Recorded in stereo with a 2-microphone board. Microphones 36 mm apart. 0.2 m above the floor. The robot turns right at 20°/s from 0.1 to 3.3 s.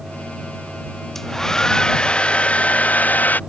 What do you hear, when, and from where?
1.1 s a hair dryer: 10° left; by 3.4 s 50° left